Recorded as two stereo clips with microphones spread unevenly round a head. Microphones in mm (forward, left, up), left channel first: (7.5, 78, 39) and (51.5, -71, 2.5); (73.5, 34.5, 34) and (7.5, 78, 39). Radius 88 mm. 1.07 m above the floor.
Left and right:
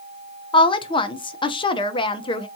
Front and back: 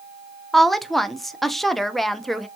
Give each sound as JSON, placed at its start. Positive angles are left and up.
{"t": 0.5, "sound": "a woman speaking", "azimuth_deg": 50, "distance_m": 0.7}